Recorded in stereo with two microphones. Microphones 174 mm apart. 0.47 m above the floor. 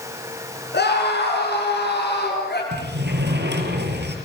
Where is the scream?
75° left (ahead or behind), 5.5 m; by 2.6 s 70° left (ahead or behind), 7.5 m.